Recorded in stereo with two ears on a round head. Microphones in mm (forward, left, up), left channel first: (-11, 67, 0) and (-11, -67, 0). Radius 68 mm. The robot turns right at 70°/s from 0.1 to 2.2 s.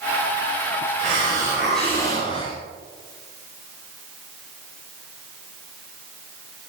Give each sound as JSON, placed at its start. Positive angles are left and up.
{"t": 1.0, "sound": "a hiss", "azimuth_deg": -50, "distance_m": 6.5}